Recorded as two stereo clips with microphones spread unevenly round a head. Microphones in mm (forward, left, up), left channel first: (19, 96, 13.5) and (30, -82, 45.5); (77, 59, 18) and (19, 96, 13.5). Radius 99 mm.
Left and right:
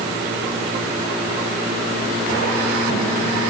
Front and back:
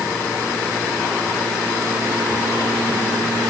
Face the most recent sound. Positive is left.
No sound to turn to.